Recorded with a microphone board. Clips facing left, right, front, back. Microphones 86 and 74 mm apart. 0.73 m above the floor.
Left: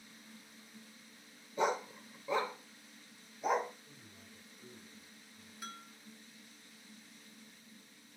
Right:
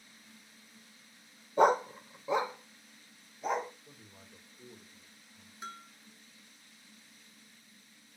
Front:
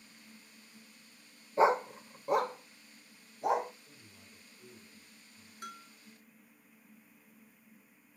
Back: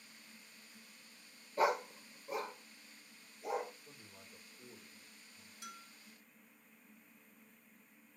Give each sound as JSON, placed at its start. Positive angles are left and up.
{"t": 1.6, "sound": "a dog barking", "azimuth_deg": -65, "distance_m": 0.6}
{"t": 3.9, "sound": "a man speaking", "azimuth_deg": -115, "distance_m": 2.5}
{"t": 5.6, "sound": "a bell", "azimuth_deg": -30, "distance_m": 1.7}